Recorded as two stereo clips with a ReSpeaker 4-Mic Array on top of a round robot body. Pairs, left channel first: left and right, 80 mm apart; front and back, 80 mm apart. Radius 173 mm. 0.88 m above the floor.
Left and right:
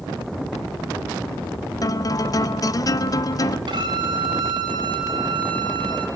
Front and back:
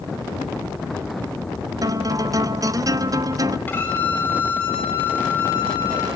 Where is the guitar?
135° left, 0.6 m.